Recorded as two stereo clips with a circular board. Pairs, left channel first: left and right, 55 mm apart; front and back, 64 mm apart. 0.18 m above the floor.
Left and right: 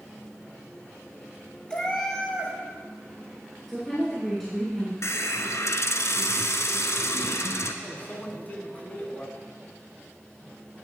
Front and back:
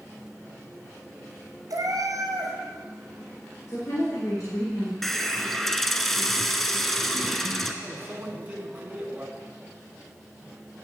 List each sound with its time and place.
1.7 s a cat meowing: 165° left, 1.6 m
3.7 s a woman speaking: 10° left, 2.5 m
5.0 s a hiss: 85° left, 0.8 m
7.8 s a microwave: 135° left, 1.4 m